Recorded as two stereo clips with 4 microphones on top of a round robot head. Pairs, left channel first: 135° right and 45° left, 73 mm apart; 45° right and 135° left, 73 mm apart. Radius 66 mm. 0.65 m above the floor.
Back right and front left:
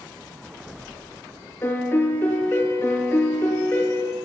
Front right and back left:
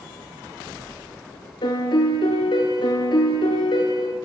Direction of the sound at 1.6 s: 75° right.